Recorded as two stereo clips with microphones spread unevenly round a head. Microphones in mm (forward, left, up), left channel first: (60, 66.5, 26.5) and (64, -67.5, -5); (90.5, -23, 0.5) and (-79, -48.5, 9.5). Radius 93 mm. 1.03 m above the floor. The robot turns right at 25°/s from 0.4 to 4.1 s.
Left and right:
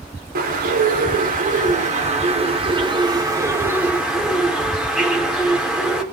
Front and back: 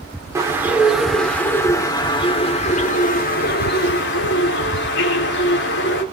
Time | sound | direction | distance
0.3 | a bird | 95° right | 4 m